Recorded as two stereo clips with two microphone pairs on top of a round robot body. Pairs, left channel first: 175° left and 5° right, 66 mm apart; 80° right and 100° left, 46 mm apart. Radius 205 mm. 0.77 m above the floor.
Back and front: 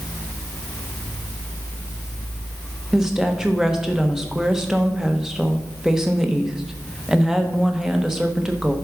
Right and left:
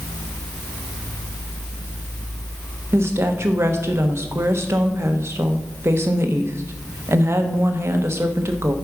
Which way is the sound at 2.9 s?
75° left.